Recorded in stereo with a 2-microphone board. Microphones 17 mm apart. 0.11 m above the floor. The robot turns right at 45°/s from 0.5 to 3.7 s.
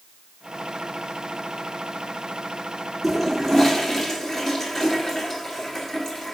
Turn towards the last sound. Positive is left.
turn(degrees=25)  # may be behind; listen again after turning